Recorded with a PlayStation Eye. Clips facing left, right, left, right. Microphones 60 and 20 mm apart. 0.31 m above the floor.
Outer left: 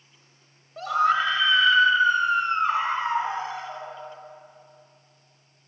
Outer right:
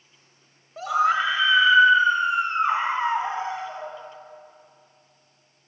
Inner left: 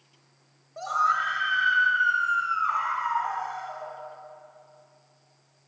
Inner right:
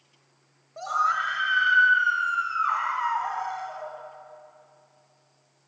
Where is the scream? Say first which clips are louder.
Even, even; centre (ahead or behind), 1.4 m; by 3.9 s 25° right (ahead or behind), 2.5 m.